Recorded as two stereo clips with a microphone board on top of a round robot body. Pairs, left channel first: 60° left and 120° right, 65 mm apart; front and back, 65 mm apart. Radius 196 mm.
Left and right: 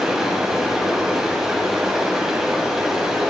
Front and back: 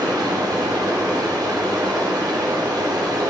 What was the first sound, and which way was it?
Running water, 160° left.